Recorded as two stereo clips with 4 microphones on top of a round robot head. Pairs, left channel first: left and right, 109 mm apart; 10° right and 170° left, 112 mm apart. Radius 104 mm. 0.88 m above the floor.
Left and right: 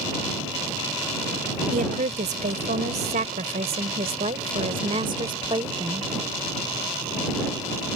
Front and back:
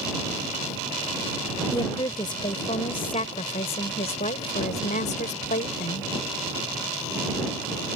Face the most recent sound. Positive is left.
turn(degrees=-25)